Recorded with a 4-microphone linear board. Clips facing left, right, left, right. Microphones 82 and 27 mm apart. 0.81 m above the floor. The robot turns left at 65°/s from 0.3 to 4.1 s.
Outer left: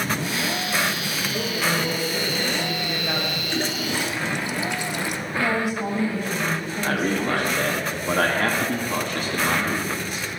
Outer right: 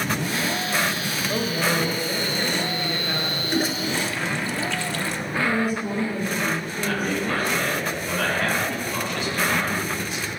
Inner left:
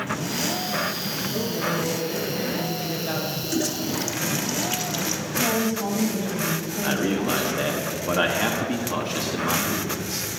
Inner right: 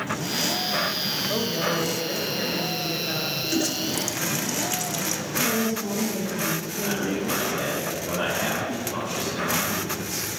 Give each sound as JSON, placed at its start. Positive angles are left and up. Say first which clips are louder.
{"t": 1.3, "sound": "a woman speaking", "louder": "outer right 2 dB, even", "azimuth_deg": -75, "distance_m": 3.5}
{"t": 3.4, "sound": "a toilet flushing", "louder": "outer right 2 dB, inner right 1 dB", "side_deg": -15, "distance_m": 0.6}
{"t": 5.4, "sound": "a woman speaking", "louder": "even, inner left 2 dB", "side_deg": 85, "distance_m": 4.0}
{"t": 6.8, "sound": "a man speaking", "louder": "outer left 3 dB, inner left 3 dB", "side_deg": 50, "distance_m": 1.5}